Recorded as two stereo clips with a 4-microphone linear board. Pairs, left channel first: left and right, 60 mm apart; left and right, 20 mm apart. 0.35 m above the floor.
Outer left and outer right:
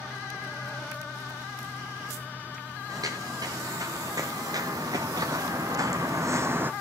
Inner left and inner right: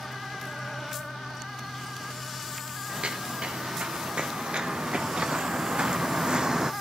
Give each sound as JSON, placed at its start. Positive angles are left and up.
{"t": 2.9, "sound": "footsteps", "side_deg": -85, "distance_m": 4.5}